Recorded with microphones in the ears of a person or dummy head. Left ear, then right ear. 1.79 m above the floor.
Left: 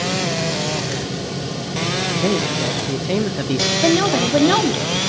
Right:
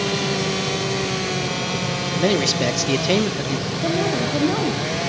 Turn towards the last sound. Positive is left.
turn(degrees=65)  # may be behind; listen again after turning